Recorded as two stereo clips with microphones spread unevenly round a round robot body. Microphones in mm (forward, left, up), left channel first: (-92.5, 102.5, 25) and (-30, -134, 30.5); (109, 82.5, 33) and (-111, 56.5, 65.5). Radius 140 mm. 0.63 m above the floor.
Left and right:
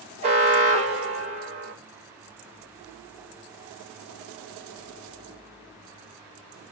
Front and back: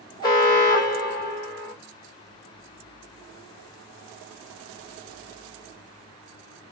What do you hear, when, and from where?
0.2 s an alarm: 30° right, 1.2 m